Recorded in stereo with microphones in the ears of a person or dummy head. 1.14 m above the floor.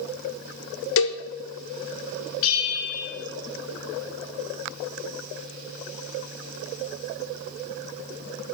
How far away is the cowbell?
About 1.2 m.